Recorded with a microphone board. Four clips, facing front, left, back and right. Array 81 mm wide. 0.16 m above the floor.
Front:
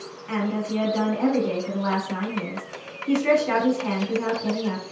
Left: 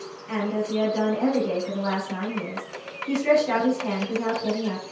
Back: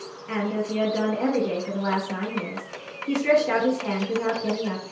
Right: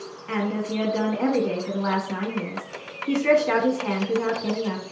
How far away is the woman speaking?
About 1.2 m.